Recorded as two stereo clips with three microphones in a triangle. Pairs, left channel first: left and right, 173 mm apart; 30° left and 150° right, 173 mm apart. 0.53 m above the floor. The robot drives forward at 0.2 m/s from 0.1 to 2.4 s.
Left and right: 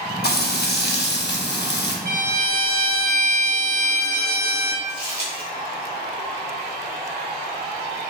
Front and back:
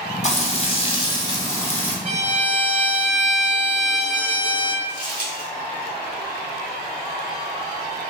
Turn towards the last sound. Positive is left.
turn(degrees=-160)